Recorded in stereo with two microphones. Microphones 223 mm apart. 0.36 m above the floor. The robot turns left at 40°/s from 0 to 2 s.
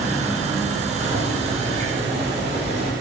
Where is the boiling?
110° right, 6.5 m; by 2.9 s 150° right, 6.5 m.